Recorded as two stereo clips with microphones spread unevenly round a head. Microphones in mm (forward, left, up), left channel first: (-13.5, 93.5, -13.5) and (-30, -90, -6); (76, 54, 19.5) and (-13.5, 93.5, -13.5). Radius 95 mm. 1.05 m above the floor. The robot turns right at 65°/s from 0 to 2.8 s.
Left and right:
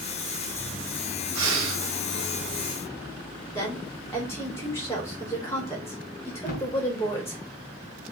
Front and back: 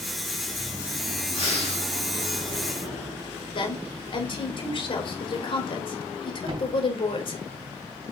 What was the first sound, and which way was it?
Breathing, 95° right.